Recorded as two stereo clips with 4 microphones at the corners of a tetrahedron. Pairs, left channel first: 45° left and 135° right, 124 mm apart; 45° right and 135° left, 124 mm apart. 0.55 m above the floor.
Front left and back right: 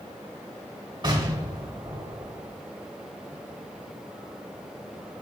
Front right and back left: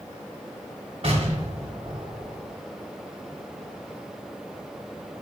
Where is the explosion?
175° left, 2.5 m.